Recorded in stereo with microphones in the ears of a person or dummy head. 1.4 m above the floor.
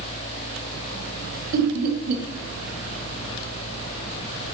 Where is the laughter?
50° right (ahead or behind), 1.2 m.